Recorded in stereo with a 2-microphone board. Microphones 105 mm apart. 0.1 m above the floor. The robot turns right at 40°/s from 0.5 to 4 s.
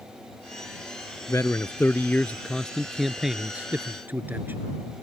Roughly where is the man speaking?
Left.